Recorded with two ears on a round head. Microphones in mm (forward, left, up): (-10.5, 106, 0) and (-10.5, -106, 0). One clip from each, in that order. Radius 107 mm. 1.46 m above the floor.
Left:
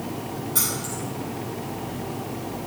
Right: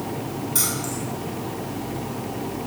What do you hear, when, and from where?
0.6 s keys jangling: 10° right (ahead or behind), 5 m